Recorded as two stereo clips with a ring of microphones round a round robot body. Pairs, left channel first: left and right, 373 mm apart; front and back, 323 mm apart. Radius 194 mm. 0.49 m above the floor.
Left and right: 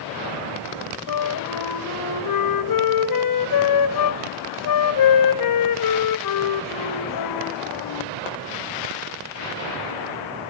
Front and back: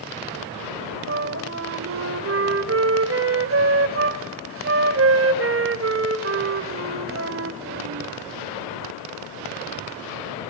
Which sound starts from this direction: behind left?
A flute, at 1.1 s.